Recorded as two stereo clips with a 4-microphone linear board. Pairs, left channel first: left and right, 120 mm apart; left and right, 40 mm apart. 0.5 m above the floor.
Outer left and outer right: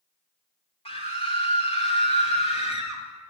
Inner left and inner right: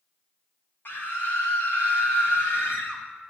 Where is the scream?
55° left (ahead or behind), 1.7 m; by 3.0 s 65° left (ahead or behind), 3 m.